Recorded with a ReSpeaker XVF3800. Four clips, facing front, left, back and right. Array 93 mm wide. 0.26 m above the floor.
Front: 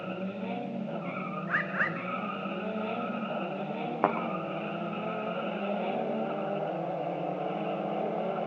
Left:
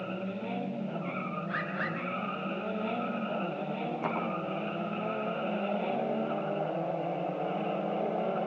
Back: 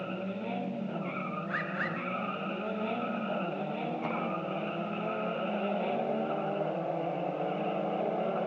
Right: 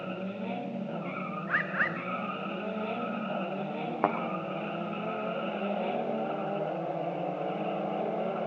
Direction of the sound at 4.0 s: 35° right.